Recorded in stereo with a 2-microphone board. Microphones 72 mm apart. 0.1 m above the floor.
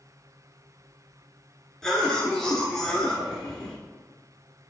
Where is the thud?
No thud in this recording.